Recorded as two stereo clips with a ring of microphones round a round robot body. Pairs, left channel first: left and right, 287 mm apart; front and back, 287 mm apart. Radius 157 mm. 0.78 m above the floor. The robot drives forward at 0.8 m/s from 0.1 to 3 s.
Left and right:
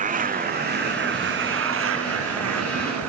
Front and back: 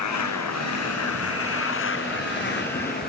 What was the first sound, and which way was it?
A motorcycle, 25° right.